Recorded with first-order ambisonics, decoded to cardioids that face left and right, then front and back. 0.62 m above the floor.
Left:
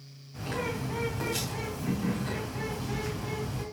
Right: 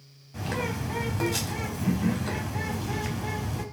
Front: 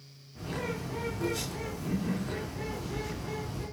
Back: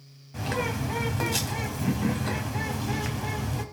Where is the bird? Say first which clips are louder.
Right 2 dB, back 7 dB; 160° right, 3.5 m.